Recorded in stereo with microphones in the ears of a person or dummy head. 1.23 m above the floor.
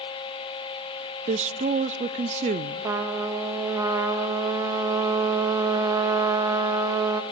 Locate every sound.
1.3 s a woman speaking: 30° right (ahead or behind), 0.6 m
2.8 s a trumpet: 15° right (ahead or behind), 1.2 m